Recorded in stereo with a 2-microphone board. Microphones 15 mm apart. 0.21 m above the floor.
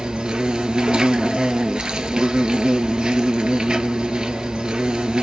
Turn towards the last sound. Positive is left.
turn(degrees=-75)  # may be behind; listen again after turning